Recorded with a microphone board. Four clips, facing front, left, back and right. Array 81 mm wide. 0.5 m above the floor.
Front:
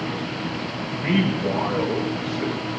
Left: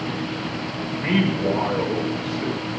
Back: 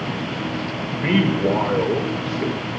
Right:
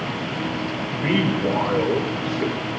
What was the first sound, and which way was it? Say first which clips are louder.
A man speaking: even, back 3 dB; straight behind.